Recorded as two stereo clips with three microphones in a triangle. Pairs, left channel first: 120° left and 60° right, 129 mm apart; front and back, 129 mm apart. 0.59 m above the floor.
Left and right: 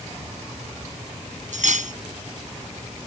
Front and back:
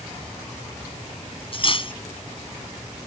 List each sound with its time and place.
1.5 s cutlery clinking: 45° right